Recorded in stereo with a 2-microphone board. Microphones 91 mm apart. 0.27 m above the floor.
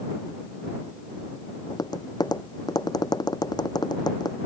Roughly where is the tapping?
Left.